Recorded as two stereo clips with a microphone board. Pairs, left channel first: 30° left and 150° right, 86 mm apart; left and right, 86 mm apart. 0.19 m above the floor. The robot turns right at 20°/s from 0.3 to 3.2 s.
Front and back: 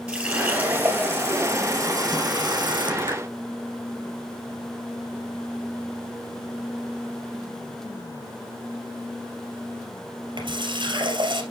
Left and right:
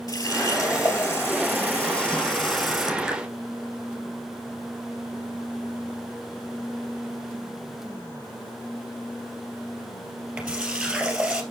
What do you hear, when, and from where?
0.1 s a running tap: 135° left, 2.5 m; by 11.4 s 170° right, 2.5 m